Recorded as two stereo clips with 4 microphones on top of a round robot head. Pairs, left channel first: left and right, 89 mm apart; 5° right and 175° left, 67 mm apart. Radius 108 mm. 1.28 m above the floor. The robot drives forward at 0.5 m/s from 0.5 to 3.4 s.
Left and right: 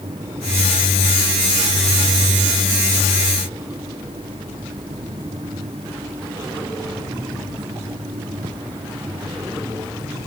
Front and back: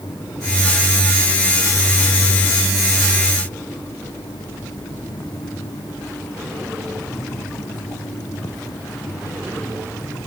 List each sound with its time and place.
Only background noise.